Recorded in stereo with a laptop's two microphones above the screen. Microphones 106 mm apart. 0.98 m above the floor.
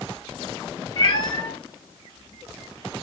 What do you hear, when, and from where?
1.0 s a cat meowing: 45° left (ahead or behind), 2 m; by 3.0 s 15° right (ahead or behind), 1.0 m